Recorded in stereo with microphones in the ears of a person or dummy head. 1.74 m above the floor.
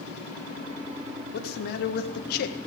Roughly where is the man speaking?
Left.